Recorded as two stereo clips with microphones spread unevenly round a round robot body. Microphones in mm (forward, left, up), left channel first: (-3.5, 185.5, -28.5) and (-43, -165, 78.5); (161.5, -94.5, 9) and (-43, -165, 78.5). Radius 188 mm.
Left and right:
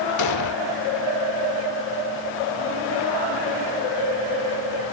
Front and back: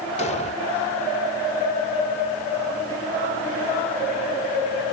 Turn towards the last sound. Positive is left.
turn(degrees=70)